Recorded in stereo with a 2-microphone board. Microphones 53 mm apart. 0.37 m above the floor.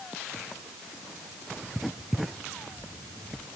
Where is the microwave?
No microwave in this recording.